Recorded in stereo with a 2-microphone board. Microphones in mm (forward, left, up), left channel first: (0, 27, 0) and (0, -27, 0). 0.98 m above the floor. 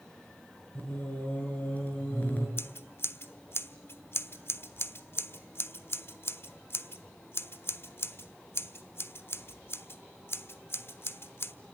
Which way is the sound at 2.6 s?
45° left (ahead or behind).